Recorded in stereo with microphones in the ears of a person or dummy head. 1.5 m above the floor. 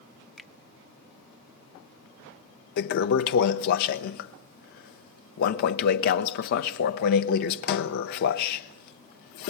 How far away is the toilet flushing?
About 0.7 m.